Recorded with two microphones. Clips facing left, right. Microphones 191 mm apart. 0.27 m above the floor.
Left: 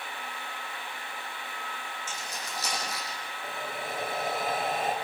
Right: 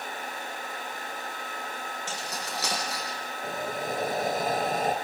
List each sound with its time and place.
2.1 s keys jangling: 70° right (ahead or behind), 9.5 m; by 3.2 s 65° right (ahead or behind), 10 m
3.4 s breathing: 40° right (ahead or behind), 1.9 m